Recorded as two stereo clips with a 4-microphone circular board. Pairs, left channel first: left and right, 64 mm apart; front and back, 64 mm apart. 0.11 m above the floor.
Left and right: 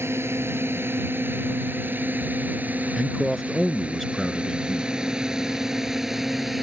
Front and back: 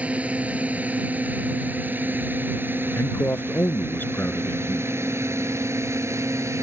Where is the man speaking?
Straight ahead.